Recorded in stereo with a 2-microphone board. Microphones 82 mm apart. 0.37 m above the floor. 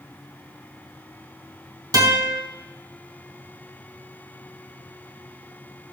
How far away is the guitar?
About 3 m.